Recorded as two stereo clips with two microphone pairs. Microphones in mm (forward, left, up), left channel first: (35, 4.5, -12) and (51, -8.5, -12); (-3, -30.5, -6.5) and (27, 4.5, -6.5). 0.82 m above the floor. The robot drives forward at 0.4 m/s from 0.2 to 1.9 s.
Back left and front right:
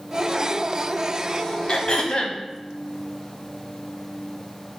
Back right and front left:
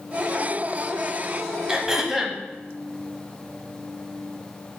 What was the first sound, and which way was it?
Throat clearing, 125° left.